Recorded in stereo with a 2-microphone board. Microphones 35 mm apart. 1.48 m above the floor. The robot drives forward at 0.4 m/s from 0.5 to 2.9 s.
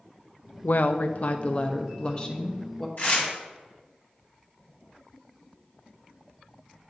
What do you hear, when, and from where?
0.6 s a woman speaking: 65° left (ahead or behind), 0.5 m; by 2.9 s 25° left (ahead or behind), 1.2 m
3.0 s tearing paper: 50° left (ahead or behind), 2.5 m